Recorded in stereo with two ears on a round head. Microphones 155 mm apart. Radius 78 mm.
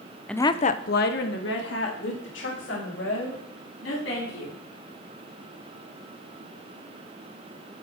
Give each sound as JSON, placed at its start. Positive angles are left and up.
{"t": 0.3, "sound": "a woman speaking", "side_deg": 5, "distance_m": 0.7}